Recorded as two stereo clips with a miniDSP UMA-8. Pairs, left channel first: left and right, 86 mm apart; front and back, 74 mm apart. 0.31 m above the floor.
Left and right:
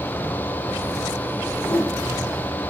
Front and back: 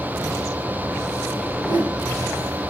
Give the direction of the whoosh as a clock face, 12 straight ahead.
7 o'clock.